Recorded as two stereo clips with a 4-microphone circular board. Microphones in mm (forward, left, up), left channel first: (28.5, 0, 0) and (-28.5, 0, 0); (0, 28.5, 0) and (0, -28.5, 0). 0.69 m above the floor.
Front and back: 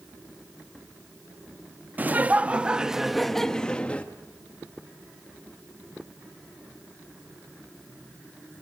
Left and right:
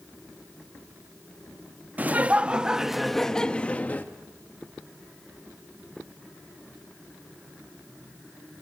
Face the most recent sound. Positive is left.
turn(degrees=50)